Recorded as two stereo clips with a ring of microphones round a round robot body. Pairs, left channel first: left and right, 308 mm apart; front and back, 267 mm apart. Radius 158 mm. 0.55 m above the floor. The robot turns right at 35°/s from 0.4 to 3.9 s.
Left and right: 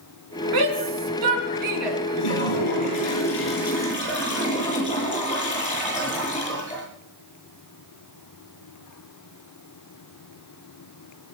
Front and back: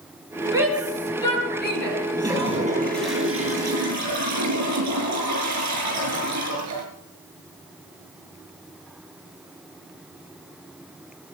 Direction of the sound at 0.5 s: 100° right.